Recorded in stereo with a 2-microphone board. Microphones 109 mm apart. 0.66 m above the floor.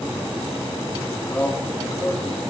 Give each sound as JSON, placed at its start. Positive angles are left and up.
{"t": 1.3, "sound": "a man speaking", "side_deg": 10, "distance_m": 6.0}